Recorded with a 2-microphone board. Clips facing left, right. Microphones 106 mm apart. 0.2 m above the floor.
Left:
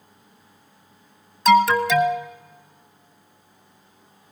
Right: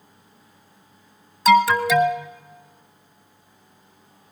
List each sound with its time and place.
1.4 s an alarm: 5° right (ahead or behind), 1.1 m